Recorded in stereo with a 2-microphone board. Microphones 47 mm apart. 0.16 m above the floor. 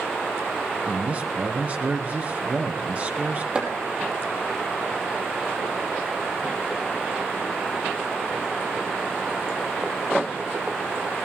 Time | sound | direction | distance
0.9 | a man speaking | 35° right (ahead or behind) | 2.5 m
3.5 | chopping | 20° right (ahead or behind) | 5.5 m